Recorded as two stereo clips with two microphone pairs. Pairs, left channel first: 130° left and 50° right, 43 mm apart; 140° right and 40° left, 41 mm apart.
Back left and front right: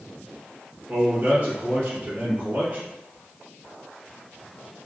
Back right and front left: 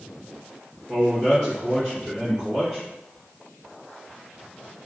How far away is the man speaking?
About 1.8 m.